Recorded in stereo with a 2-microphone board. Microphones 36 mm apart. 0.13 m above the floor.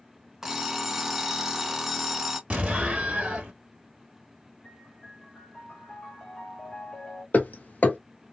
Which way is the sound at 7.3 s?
50° left (ahead or behind).